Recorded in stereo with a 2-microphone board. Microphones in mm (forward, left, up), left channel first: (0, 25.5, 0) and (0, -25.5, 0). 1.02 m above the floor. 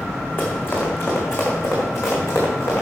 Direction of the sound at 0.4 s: 45° left (ahead or behind).